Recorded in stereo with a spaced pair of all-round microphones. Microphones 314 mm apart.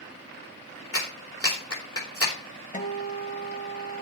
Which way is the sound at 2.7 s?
25° left (ahead or behind).